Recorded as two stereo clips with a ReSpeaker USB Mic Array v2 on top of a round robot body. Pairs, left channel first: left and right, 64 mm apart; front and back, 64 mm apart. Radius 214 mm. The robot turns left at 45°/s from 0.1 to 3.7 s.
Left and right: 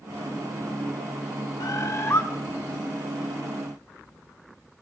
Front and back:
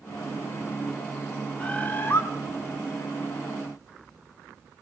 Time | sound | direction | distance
1.6 | a bird | 70° left | 4 m